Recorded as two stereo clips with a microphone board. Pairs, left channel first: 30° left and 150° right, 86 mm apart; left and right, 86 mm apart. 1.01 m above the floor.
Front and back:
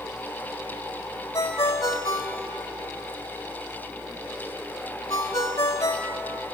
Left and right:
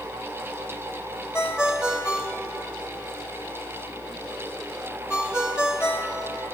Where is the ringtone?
15° right, 2.5 m.